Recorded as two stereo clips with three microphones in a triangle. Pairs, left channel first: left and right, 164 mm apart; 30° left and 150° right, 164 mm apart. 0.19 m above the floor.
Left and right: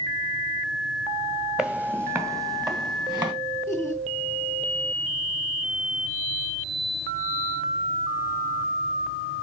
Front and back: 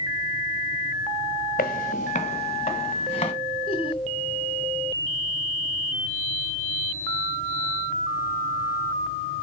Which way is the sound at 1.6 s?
5° right.